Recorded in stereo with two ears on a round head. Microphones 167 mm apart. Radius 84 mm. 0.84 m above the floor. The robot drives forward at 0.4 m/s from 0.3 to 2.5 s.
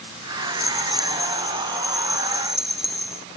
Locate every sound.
0.5 s a rattle: centre (ahead or behind)